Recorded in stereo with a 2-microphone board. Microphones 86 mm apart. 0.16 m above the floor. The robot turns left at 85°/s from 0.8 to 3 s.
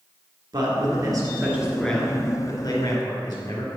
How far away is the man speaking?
About 2 m.